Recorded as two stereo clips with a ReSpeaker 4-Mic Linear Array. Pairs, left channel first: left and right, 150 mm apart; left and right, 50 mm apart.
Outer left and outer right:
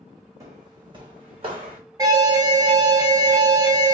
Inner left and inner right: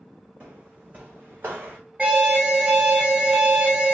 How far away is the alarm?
About 1.4 m.